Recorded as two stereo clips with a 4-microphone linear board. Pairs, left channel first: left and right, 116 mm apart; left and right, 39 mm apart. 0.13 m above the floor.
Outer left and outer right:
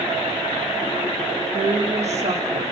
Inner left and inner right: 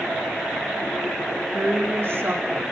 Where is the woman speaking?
70° right (ahead or behind), 6 m; by 2.7 s 75° right (ahead or behind), 6.5 m.